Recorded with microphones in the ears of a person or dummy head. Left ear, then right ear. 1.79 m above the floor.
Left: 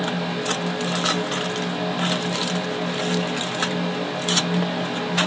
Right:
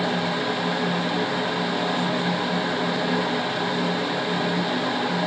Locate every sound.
Only background noise.